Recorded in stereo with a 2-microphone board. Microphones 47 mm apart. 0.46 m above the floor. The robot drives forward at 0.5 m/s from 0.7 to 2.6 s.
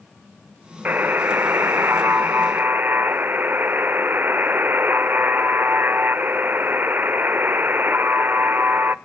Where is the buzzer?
40° right (ahead or behind), 0.9 m; by 8.9 s 45° right (ahead or behind), 0.8 m.